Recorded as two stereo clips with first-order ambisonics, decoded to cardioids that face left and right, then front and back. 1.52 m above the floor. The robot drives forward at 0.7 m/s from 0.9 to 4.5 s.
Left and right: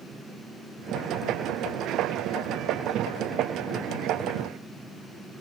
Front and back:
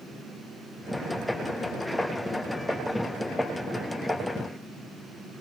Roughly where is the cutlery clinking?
No cutlery clinking in this recording.